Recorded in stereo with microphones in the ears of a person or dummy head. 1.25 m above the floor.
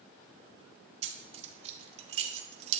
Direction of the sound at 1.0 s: 35° right (ahead or behind).